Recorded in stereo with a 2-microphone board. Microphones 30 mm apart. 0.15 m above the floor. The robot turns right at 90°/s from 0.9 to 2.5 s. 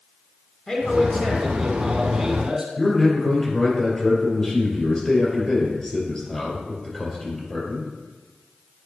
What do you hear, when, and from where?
0.7 s a man speaking: 20° left (ahead or behind), 1.8 m; by 2.7 s 20° right (ahead or behind), 1.8 m
2.8 s a man speaking: 25° left (ahead or behind), 3.5 m